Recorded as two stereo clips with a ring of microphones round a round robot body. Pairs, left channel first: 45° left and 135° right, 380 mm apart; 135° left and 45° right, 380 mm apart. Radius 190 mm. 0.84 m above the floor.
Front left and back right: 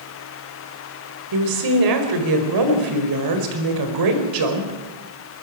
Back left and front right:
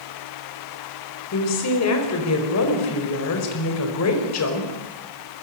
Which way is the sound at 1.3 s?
175° right.